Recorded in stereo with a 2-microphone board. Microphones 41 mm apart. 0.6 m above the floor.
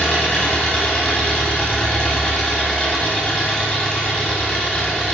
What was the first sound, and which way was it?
An engine running, 15° left (ahead or behind).